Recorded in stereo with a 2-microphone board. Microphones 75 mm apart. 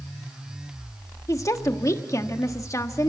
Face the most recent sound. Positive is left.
turn(degrees=45)  # may be behind; listen again after turning